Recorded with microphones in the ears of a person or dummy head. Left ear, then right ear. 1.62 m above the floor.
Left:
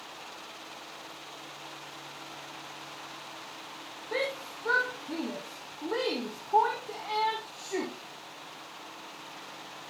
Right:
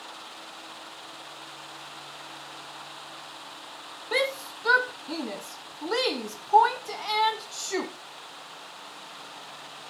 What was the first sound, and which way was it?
A shout, 75° right (ahead or behind).